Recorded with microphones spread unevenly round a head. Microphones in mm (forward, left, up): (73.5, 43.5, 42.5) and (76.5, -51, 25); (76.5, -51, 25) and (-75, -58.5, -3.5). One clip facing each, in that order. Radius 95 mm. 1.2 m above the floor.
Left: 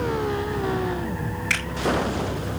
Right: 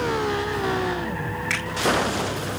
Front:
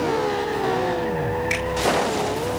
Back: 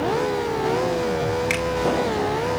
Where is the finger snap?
175° left, 5 m.